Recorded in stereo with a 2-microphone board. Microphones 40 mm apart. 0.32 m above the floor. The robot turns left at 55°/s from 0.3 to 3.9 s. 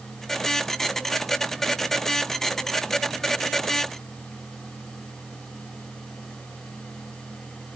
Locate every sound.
Only background noise.